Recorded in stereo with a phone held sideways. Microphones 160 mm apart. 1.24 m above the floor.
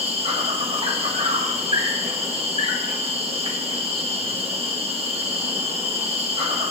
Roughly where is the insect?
Right.